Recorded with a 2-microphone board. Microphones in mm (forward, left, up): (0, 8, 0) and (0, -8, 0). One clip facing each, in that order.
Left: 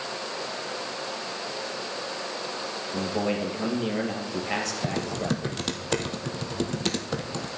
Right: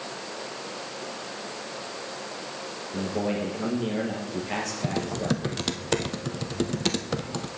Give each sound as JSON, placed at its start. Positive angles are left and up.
{"t": 2.9, "sound": "a man speaking", "side_deg": 15, "distance_m": 3.0}
{"t": 4.8, "sound": "typing on a keyboard", "side_deg": -5, "distance_m": 0.8}